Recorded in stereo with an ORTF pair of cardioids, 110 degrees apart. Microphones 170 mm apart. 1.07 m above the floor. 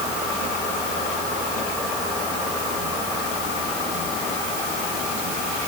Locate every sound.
Only background noise.